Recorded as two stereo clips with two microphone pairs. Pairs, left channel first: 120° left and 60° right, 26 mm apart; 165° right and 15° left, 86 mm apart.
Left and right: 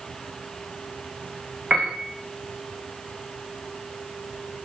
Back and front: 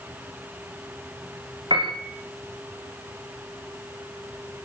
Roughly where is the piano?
Ahead.